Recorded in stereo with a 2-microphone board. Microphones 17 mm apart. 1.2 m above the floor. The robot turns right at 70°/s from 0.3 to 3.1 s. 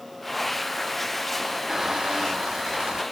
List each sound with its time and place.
1.7 s a squeak: 155° right; by 3.0 s 60° right